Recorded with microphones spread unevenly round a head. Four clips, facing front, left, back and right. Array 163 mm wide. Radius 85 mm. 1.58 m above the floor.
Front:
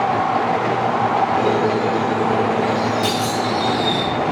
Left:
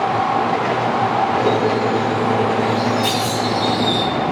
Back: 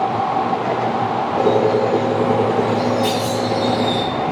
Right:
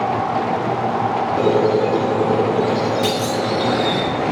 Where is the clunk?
50° right, 2.5 m.